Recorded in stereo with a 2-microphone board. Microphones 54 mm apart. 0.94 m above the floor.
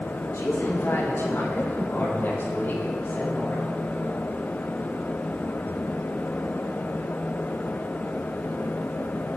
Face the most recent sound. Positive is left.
turn(degrees=35)  # may be behind; listen again after turning